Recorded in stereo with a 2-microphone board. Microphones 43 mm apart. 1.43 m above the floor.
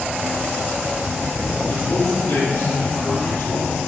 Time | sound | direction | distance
1.7 | a man speaking | 85° left | 3.5 m